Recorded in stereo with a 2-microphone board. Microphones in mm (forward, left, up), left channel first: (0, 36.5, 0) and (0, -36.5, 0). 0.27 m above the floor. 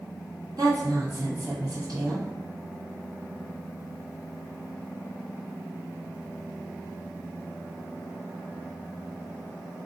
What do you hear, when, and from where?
0.6 s a woman speaking: 60° right (ahead or behind), 2.5 m